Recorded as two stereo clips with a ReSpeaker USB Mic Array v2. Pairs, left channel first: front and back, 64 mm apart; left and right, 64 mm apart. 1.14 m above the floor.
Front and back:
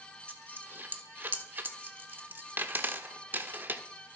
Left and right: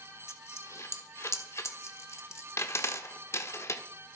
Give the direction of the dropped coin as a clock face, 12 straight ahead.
8 o'clock.